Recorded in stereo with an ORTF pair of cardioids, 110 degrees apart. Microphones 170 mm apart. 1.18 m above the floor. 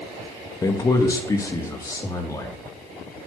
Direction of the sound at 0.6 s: 20° left.